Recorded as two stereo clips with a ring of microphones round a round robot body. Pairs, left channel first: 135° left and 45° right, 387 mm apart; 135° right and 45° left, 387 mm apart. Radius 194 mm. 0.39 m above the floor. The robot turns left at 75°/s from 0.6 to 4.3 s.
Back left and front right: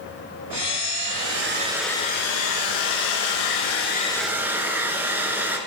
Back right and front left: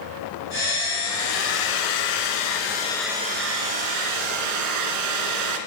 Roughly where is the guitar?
No guitar in this recording.